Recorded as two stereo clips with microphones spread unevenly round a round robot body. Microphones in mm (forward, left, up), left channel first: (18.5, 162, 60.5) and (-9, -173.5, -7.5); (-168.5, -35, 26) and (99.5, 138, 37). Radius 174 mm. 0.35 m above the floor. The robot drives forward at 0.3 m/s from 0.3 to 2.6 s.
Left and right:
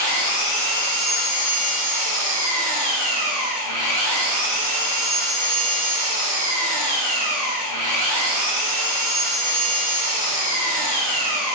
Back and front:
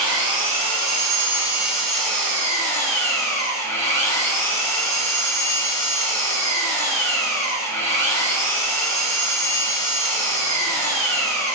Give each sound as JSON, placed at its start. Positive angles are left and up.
{"t": 0.0, "sound": "an engine running", "azimuth_deg": 95, "distance_m": 1.1}